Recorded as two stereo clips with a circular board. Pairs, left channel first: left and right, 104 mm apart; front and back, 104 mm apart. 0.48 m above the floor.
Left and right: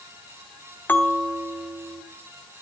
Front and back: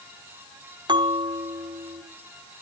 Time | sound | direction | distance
0.9 | a bell | 160° left | 1.9 m